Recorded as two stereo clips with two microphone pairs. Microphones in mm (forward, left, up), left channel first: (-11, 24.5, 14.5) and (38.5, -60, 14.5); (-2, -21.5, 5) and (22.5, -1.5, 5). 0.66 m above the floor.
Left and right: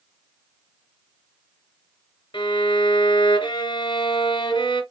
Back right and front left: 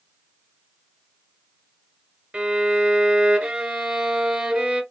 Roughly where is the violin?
Left.